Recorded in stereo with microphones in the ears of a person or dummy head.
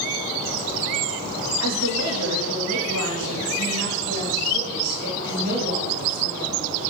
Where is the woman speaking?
80° right, 3 m; by 6.9 s 30° right (ahead or behind), 3.5 m.